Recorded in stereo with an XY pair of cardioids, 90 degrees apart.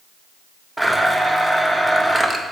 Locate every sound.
0.8 s a blender: 5° right, 0.6 m